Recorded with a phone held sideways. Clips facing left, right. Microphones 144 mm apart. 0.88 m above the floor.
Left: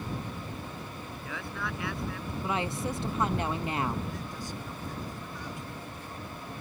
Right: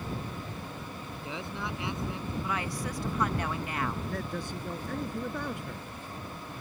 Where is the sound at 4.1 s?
60° right (ahead or behind).